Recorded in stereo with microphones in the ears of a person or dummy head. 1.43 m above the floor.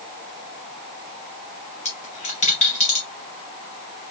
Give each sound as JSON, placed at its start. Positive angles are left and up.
{"t": 1.9, "sound": "a dropped coin", "side_deg": 40, "distance_m": 1.3}